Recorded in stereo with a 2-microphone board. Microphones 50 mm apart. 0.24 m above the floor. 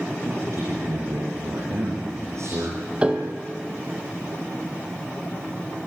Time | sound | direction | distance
0.2 | a man speaking | 70° right (ahead or behind) | 6.5 m
3.0 | a piano | 20° right (ahead or behind) | 2 m